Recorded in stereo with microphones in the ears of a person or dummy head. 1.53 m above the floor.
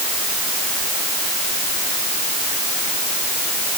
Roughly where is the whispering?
No whispering in this recording.